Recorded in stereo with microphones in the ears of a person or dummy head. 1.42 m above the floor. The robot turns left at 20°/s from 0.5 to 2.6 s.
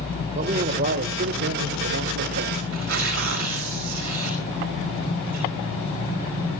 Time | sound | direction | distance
0.3 | a man speaking | 45° right | 1.5 m
2.7 | tearing paper | 70° right (ahead or behind) | 5 m